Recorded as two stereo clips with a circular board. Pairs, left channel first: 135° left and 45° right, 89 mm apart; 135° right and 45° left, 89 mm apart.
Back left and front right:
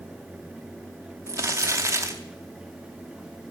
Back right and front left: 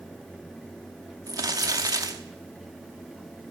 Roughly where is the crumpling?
Ahead.